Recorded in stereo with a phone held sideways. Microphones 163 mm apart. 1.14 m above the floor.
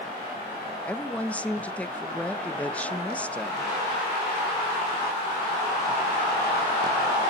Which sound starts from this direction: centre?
A woman speaking, at 0.8 s.